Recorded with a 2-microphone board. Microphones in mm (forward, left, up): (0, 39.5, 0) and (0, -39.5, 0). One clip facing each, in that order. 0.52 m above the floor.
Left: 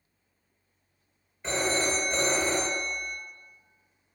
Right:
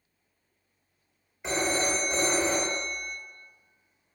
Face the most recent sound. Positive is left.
turn(degrees=-10)  # may be behind; listen again after turning